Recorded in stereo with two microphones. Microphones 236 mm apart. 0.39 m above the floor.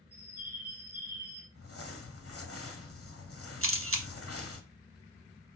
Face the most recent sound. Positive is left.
turn(degrees=-65)  # may be behind; listen again after turning